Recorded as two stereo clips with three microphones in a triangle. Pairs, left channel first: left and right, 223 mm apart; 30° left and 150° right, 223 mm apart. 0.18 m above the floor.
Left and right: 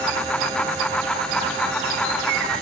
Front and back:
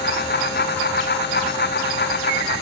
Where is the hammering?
No hammering in this recording.